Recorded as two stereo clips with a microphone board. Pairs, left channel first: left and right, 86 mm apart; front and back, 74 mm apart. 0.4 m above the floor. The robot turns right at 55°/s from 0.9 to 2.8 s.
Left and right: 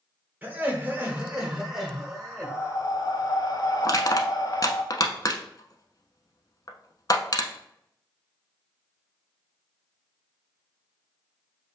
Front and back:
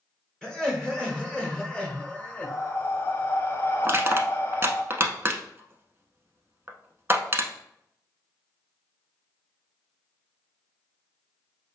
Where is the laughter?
60° right, 1.2 m; by 2.5 s 30° left, 1.2 m.